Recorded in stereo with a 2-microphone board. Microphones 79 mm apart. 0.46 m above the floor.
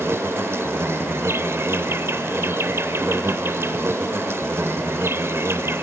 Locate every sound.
0.0 s an insect: 30° right (ahead or behind), 1.0 m